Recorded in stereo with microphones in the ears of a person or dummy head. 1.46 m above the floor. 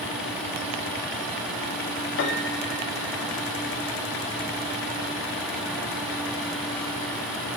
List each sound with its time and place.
2.2 s a piano: 65° left (ahead or behind), 1.9 m